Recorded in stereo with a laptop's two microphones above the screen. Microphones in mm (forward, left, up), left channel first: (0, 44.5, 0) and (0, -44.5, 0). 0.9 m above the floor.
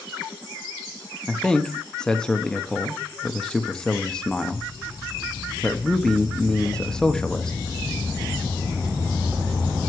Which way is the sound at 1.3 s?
10° left (ahead or behind).